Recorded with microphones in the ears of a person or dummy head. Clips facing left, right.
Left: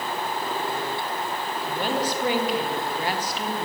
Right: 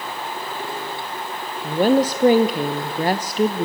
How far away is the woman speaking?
About 0.8 m.